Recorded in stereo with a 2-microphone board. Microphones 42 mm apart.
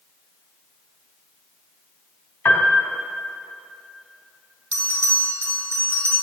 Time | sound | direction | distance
2.5 | a piano | 65° left (ahead or behind) | 2 m
4.7 | a bell | 90° right | 3.5 m